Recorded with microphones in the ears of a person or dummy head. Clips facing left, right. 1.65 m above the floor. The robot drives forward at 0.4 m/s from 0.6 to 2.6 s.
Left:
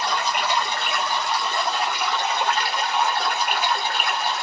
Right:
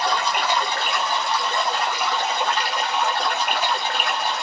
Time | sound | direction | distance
0.0 | running water | 60° right (ahead or behind) | 1.0 m